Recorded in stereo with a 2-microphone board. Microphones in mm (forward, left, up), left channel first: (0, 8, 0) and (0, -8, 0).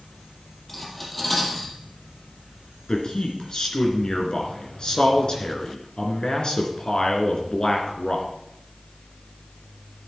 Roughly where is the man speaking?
Left.